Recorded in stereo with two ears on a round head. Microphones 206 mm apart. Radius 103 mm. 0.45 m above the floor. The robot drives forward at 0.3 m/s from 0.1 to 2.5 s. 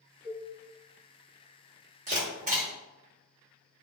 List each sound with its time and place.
0.2 s a cowbell: 30° left (ahead or behind), 1.0 m
2.1 s a camera shutter: 35° right (ahead or behind), 1.3 m